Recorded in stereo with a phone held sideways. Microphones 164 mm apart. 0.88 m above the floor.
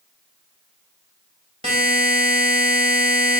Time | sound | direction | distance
1.6 | a buzzer | 40° right (ahead or behind) | 1.6 m